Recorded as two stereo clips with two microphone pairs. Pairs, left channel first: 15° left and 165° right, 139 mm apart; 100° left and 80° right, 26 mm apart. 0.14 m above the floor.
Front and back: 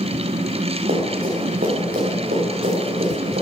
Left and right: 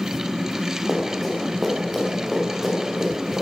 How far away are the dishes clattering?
I don't hear dishes clattering.